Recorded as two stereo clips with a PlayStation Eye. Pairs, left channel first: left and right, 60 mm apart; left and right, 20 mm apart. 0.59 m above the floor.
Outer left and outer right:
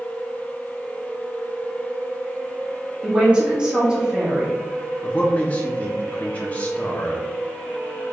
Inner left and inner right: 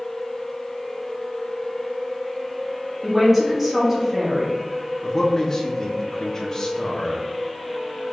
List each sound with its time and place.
3.0 s a man speaking: 15° right (ahead or behind), 1.2 m
5.0 s a man speaking: 25° left (ahead or behind), 0.6 m